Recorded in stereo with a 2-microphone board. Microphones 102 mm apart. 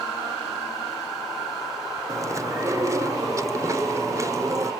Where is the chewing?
30° right (ahead or behind), 1.3 m.